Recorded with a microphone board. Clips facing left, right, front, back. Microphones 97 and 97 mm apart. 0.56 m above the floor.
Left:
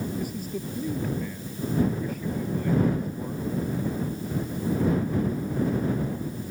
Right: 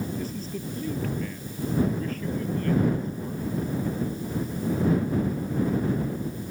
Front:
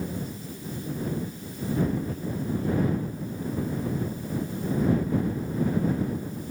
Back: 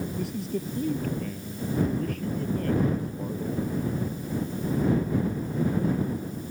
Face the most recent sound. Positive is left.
turn(degrees=165)